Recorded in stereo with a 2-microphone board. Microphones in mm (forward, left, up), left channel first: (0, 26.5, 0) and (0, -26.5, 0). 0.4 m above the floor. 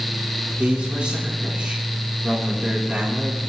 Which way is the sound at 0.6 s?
20° right (ahead or behind).